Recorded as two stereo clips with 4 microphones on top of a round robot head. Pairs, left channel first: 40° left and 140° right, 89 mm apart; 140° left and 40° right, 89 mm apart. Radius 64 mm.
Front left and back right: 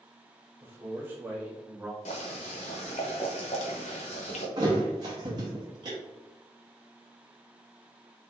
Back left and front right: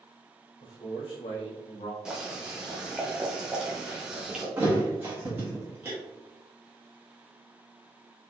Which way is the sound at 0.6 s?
160° left.